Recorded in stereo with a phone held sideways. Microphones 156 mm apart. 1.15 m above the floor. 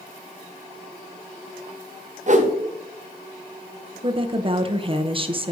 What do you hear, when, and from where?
2.3 s a whoosh: 50° right (ahead or behind), 0.9 m
4.0 s a woman speaking: 35° right (ahead or behind), 0.7 m